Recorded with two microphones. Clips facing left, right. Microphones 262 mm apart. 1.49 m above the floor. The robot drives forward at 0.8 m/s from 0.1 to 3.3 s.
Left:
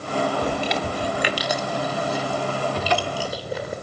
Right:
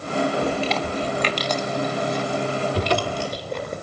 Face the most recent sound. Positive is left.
turn(degrees=-45)  # may be behind; listen again after turning